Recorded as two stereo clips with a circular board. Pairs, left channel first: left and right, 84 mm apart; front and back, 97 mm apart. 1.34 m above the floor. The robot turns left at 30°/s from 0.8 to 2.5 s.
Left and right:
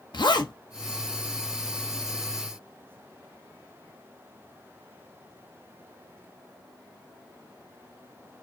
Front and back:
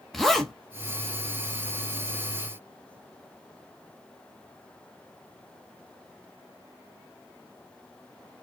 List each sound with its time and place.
0.1 s a zipper: 85° left, 0.8 m